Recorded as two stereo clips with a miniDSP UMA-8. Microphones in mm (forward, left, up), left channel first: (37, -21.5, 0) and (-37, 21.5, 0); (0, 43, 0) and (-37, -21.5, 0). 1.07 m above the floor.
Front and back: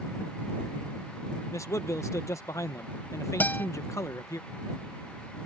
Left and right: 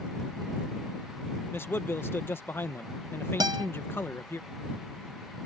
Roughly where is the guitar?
Right.